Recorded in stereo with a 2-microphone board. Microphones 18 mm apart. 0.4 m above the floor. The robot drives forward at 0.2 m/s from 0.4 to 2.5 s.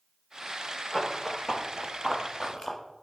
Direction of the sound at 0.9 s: 30° left (ahead or behind).